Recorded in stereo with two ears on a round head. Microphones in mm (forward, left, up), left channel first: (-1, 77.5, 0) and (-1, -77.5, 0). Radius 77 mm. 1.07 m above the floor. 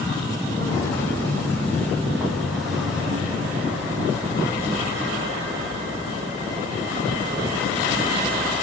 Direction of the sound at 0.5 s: 20° left (ahead or behind).